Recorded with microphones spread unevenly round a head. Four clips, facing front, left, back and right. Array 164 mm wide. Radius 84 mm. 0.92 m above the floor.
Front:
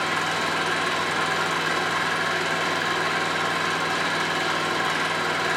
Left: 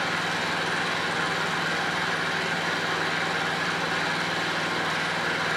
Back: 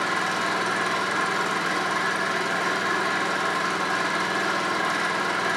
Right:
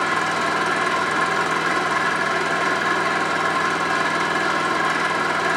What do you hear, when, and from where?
0.0 s an engine running: 90° right, 2 m